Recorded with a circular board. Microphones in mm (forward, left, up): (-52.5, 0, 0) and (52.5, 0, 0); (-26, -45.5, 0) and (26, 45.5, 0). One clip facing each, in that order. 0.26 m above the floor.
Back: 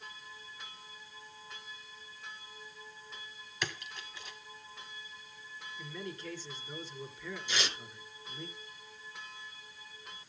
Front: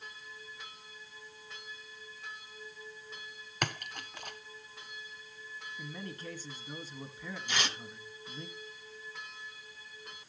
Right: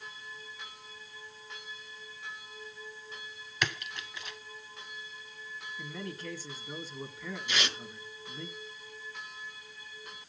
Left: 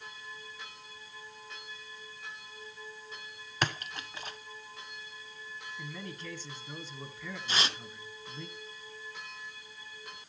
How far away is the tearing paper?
About 2.5 m.